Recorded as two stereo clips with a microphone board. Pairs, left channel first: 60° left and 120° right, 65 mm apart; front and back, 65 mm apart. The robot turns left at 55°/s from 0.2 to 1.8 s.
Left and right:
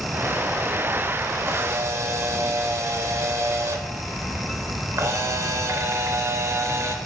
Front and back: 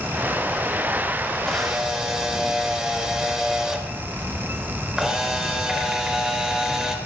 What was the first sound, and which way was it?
A camera shutter, 80° right.